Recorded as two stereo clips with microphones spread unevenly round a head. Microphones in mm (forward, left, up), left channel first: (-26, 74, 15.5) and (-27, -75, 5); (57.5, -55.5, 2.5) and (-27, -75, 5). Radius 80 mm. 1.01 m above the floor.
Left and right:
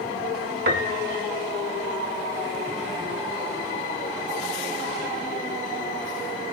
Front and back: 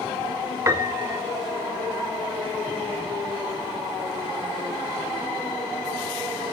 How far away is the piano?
About 1.7 m.